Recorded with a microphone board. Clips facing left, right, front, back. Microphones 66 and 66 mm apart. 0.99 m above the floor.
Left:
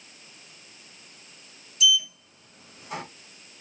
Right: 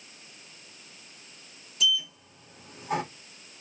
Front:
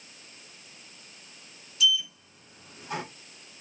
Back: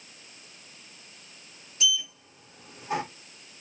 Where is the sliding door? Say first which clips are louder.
Left 4 dB, front 2 dB; 120° right, 3 m.